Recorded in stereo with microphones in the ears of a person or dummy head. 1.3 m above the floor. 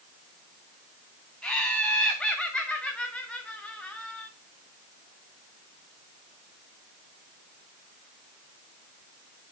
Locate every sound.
1.4 s laughter: 5° left (ahead or behind), 2.5 m